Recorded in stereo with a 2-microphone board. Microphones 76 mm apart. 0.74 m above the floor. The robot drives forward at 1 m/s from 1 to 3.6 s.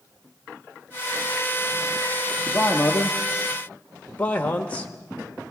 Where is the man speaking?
20° left (ahead or behind), 1.0 m.